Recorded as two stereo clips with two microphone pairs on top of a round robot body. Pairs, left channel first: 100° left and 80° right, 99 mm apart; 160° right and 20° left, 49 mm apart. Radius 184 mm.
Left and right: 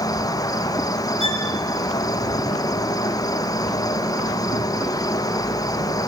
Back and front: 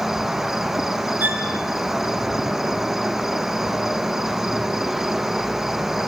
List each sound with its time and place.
0.0 s an insect: 95° left, 1.7 m
1.2 s a violin: 70° left, 6 m